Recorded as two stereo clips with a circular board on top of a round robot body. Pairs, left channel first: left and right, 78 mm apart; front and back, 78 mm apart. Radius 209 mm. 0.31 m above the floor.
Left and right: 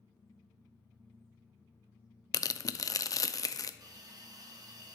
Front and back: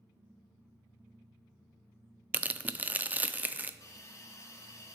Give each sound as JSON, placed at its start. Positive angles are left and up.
{"t": 2.3, "sound": "tearing paper", "azimuth_deg": 115, "distance_m": 0.5}
{"t": 3.8, "sound": "a hiss", "azimuth_deg": -55, "distance_m": 0.8}